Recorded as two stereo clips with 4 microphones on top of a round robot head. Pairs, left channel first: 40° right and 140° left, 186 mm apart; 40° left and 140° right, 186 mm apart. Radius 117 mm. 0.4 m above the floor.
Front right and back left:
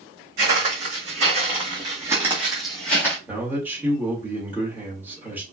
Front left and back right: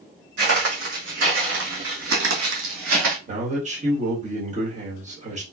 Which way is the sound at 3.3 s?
145° right.